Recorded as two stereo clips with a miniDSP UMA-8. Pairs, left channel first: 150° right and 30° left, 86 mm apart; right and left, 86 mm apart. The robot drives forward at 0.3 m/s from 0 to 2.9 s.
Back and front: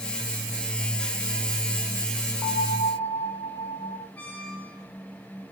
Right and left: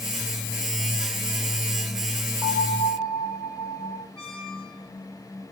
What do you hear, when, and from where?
2.4 s a bell: 145° right, 5.5 m
4.2 s a squeak: 75° right, 3 m